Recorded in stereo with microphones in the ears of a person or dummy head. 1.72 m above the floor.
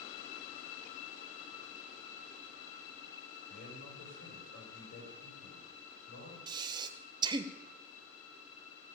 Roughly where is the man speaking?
Left.